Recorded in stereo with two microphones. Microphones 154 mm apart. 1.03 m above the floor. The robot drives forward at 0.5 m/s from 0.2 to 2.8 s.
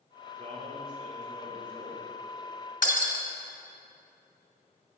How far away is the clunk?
No clunk in this recording.